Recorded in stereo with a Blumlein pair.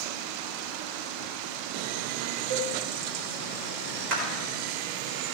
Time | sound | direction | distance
2.5 | a cowbell | 60° right | 1.3 m
4.1 | a clap | 35° right | 4 m